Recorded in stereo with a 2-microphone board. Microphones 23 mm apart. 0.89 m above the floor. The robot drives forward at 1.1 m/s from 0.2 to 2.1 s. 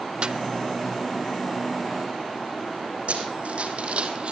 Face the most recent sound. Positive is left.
turn(degrees=-60)  # may be behind; listen again after turning